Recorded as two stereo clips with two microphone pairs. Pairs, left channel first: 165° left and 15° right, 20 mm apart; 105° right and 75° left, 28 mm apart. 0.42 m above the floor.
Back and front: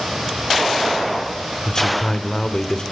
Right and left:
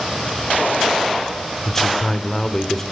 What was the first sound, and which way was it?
A man speaking, 175° right.